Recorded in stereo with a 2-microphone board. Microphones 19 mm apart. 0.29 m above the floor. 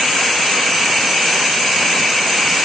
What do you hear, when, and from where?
Only background noise.